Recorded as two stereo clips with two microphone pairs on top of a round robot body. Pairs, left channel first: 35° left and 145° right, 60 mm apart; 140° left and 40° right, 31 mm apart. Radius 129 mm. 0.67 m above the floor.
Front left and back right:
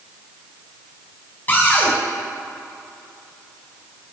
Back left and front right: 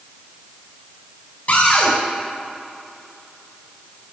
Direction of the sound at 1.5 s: 95° left.